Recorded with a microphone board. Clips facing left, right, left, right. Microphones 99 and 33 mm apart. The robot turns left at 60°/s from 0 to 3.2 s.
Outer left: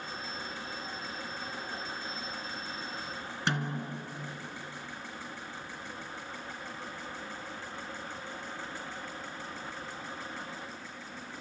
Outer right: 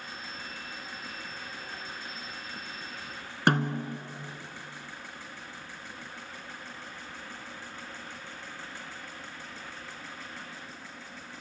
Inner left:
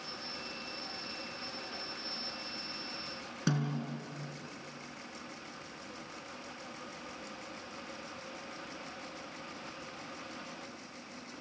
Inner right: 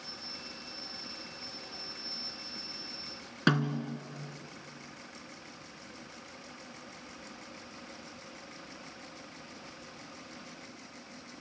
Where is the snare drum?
50° right (ahead or behind), 1.7 m.